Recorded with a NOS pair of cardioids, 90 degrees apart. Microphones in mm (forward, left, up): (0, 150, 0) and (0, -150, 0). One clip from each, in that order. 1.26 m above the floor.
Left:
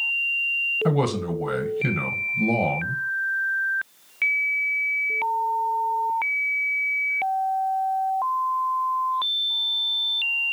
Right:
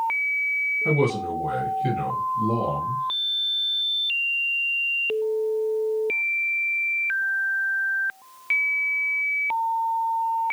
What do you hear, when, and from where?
0.8 s a man speaking: 65° left, 1.1 m